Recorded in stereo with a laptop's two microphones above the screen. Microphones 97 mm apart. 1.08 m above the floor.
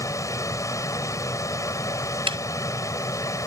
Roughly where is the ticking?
Right.